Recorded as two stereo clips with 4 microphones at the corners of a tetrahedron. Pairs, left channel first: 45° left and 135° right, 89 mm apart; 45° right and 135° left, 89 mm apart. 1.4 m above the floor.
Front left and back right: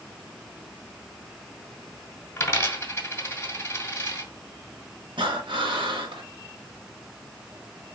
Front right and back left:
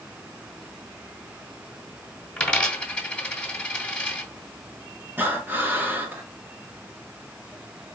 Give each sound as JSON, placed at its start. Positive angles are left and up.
{"t": 2.4, "sound": "a dropped coin", "azimuth_deg": 20, "distance_m": 1.2}
{"t": 5.2, "sound": "breathing", "azimuth_deg": -155, "distance_m": 1.0}